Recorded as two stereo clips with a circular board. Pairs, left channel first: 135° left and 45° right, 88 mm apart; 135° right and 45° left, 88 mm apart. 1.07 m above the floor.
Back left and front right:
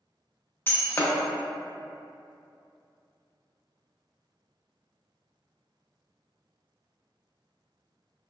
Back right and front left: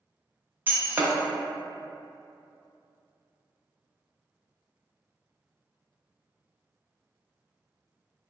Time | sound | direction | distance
0.7 | breaking glass | 95° left | 0.6 m